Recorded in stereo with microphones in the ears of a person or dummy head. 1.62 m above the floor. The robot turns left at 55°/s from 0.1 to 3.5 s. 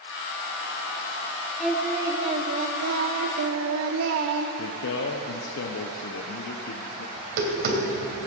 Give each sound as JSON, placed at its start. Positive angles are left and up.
{"t": 1.6, "sound": "singing", "azimuth_deg": 5, "distance_m": 1.2}
{"t": 4.6, "sound": "a man speaking", "side_deg": 70, "distance_m": 0.9}
{"t": 7.2, "sound": "tapping", "side_deg": -50, "distance_m": 3.0}